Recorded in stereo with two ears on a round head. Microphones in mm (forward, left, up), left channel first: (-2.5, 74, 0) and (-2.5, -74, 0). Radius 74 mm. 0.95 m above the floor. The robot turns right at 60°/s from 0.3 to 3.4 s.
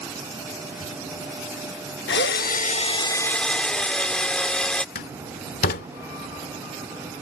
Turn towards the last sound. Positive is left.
turn(degrees=55)  # may be behind; listen again after turning